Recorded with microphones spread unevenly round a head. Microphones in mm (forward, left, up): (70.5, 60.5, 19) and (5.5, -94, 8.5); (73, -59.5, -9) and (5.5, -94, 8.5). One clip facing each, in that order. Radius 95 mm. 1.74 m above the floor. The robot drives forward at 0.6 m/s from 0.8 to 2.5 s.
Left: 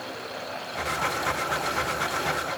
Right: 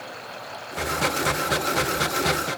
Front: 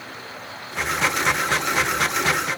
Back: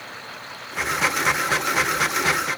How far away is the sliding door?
No sliding door in this recording.